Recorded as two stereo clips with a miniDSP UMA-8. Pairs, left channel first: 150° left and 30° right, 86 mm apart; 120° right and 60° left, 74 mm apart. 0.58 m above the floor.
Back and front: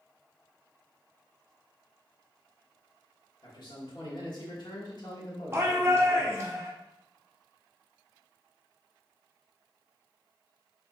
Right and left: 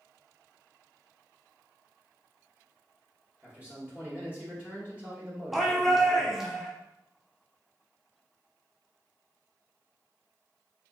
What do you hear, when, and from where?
3.4 s a man speaking: 130° left, 1.5 m
5.5 s a shout: 25° right, 1.0 m